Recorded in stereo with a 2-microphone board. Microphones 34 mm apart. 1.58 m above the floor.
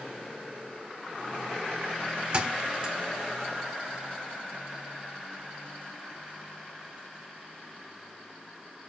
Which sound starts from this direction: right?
A thud, at 2.3 s.